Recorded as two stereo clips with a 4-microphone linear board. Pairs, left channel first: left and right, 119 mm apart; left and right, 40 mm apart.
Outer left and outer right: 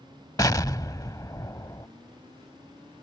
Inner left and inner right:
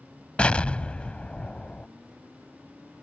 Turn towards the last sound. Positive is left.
turn(degrees=30)  # may be behind; listen again after turning